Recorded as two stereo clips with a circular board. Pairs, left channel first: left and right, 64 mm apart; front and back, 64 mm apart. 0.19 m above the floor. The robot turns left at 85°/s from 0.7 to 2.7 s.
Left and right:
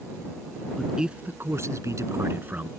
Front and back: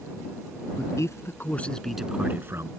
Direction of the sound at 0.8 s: 5° left.